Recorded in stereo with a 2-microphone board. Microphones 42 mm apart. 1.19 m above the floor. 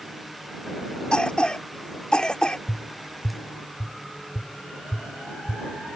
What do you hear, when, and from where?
1.1 s a cough: 20° left (ahead or behind)
2.7 s tapping: 70° left (ahead or behind)